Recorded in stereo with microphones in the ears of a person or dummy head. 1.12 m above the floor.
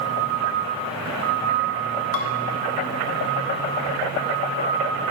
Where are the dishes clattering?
80° left, 1.4 m.